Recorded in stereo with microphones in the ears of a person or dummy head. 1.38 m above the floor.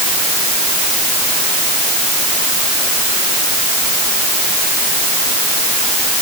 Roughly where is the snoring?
I don't hear snoring.